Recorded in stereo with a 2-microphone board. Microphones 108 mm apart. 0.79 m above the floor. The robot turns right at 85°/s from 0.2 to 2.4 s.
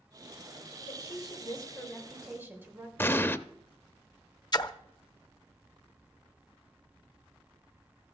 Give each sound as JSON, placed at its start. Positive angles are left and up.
{"t": 0.9, "sound": "a woman speaking", "azimuth_deg": 70, "distance_m": 2.5}
{"t": 3.0, "sound": "an explosion", "side_deg": 20, "distance_m": 0.5}
{"t": 4.5, "sound": "a splash", "side_deg": 40, "distance_m": 0.6}